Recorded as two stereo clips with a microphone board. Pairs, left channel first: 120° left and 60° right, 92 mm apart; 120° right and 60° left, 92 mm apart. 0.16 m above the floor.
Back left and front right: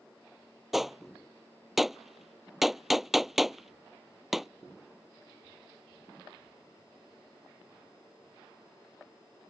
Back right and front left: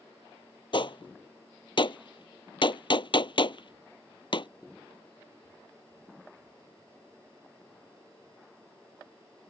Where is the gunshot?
145° right.